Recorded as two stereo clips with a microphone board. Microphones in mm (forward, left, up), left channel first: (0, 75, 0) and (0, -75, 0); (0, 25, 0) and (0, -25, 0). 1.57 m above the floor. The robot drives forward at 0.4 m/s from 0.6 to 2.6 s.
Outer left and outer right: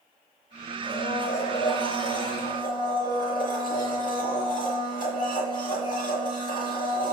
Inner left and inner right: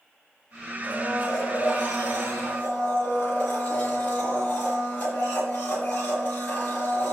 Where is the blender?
35° left (ahead or behind), 6 m; by 7.1 s 30° left (ahead or behind), 6.5 m.